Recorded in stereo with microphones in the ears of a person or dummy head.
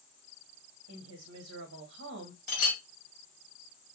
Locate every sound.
0.9 s a woman speaking: 70° right (ahead or behind), 0.8 m
2.5 s a clink: 65° left (ahead or behind), 1.0 m